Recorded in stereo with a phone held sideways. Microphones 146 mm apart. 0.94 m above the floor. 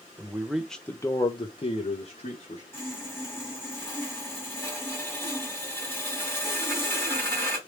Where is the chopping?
I don't hear chopping.